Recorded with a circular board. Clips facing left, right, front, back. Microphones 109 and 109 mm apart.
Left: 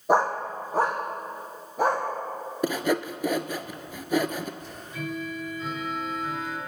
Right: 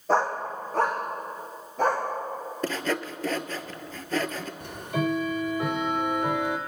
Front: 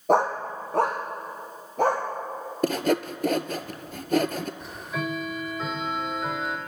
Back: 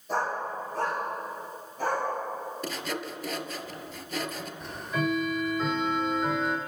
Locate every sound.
0.1 s a dog barking: 15° left, 1.7 m; by 2.0 s 10° left, 5 m
2.6 s sawing: 15° left, 0.7 m
4.6 s ticking: 90° right, 1.8 m